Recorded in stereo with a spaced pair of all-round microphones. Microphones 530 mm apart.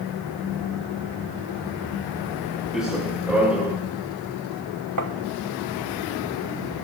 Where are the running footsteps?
Centre (ahead or behind), 5.5 m.